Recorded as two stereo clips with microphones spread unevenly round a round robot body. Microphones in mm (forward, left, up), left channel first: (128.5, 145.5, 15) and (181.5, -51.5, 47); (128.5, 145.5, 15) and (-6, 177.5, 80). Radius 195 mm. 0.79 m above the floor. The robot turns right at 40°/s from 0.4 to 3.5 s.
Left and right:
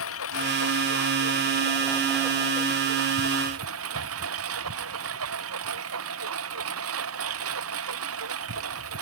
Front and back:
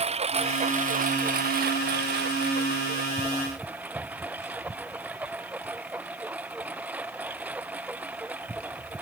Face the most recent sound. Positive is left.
turn(degrees=-110)